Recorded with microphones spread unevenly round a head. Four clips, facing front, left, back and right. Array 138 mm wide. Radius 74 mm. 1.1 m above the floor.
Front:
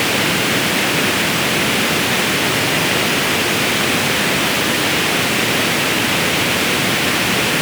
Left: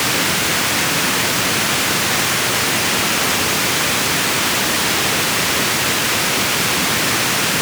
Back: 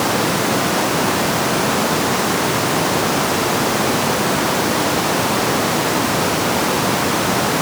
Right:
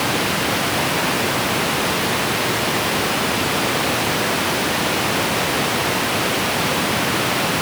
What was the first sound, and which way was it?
Only background noise.